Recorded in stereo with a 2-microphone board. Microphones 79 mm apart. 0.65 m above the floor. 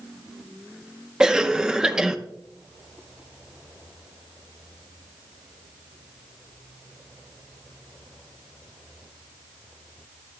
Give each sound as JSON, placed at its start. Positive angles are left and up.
{"t": 1.2, "sound": "a cough", "side_deg": -10, "distance_m": 0.5}